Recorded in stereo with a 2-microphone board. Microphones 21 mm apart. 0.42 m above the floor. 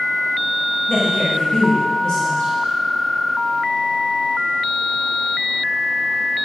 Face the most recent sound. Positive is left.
turn(degrees=40)  # may be behind; listen again after turning